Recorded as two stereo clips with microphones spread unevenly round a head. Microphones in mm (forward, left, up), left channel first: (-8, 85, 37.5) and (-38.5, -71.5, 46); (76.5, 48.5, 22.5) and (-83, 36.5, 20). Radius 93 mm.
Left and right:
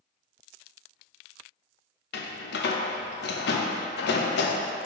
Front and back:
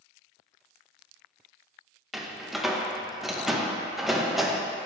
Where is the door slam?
95° left, 0.6 m.